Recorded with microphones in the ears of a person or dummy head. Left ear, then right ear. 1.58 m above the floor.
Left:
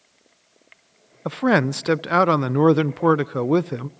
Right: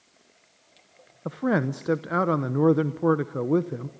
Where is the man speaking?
40° left (ahead or behind), 0.6 m.